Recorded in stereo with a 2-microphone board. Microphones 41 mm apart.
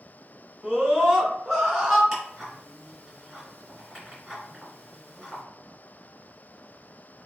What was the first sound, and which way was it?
A scream, 25° right (ahead or behind).